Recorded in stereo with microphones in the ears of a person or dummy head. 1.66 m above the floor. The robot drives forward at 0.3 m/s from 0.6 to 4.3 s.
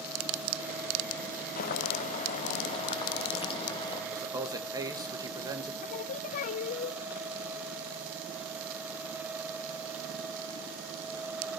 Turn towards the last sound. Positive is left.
turn(degrees=50)  # may be behind; listen again after turning